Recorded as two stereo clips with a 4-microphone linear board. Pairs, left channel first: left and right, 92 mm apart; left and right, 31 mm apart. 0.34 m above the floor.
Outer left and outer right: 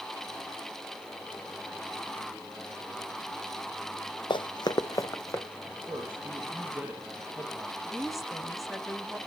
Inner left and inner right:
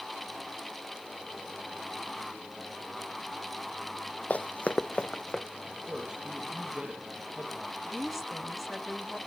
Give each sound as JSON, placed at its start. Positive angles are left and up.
{"t": 4.3, "sound": "running footsteps", "side_deg": 60, "distance_m": 0.6}
{"t": 5.6, "sound": "a man speaking", "side_deg": -15, "distance_m": 7.5}
{"t": 7.8, "sound": "a woman speaking", "side_deg": 0, "distance_m": 1.9}